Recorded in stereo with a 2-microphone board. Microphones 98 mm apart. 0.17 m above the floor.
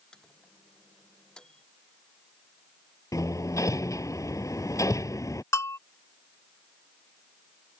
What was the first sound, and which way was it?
A microwave, 10° left (ahead or behind).